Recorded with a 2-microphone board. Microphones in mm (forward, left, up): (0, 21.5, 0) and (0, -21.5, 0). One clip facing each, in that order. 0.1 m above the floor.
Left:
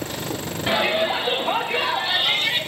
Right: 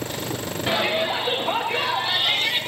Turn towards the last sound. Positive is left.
turn(degrees=0)  # may be behind; listen again after turning